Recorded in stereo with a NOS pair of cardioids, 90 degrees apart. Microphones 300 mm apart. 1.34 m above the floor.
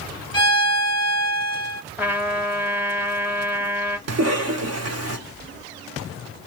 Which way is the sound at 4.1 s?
55° right.